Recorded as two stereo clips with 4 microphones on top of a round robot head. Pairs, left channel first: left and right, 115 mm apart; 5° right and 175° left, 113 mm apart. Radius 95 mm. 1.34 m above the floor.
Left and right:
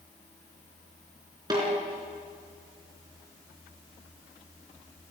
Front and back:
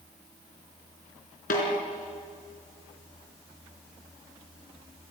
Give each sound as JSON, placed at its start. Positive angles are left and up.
{"t": 1.5, "sound": "a snare drum", "azimuth_deg": -25, "distance_m": 4.5}